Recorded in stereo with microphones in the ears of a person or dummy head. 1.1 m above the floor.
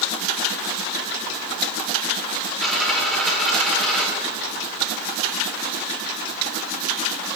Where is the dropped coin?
5° left (ahead or behind), 1.8 m.